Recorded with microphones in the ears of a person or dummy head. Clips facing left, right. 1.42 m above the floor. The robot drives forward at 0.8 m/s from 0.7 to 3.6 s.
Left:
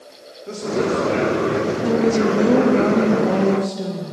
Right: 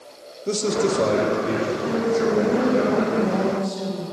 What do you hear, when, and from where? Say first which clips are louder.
0.5 s a man speaking: even; 50° right (ahead or behind), 0.8 m; by 1.7 s 25° right (ahead or behind), 1.4 m
1.8 s a woman speaking: left 5 dB; 55° left (ahead or behind), 1.3 m